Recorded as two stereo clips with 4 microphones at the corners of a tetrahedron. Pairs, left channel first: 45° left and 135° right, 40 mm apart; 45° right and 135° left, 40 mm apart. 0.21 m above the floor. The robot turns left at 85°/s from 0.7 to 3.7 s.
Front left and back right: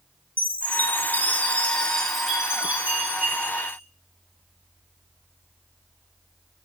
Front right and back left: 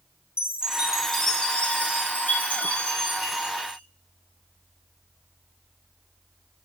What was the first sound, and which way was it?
A chime, 75° left.